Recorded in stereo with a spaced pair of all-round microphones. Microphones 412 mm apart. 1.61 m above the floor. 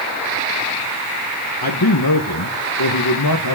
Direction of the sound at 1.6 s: 60° left (ahead or behind).